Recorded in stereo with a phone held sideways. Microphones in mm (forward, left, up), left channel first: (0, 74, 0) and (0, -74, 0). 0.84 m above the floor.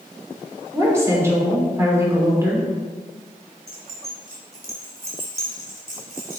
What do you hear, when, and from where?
0.7 s a woman speaking: 20° right (ahead or behind), 3 m
3.7 s keys jangling: 80° right, 2.5 m